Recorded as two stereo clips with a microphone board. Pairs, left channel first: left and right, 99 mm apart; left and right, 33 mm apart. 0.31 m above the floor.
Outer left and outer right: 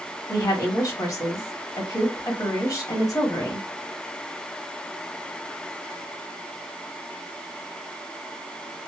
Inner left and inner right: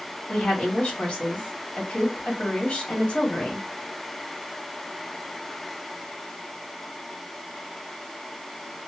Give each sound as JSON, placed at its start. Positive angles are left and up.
{"t": 0.3, "sound": "a woman speaking", "side_deg": 40, "distance_m": 1.3}